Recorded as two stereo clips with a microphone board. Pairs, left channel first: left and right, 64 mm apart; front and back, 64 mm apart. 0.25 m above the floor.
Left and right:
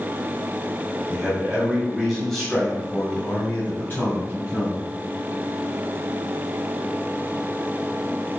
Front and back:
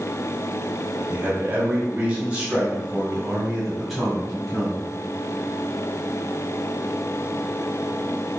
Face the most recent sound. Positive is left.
turn(degrees=80)